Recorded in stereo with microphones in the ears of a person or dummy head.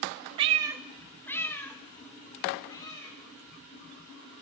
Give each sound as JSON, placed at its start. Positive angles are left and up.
{"t": 0.4, "sound": "a cat meowing", "side_deg": -35, "distance_m": 0.5}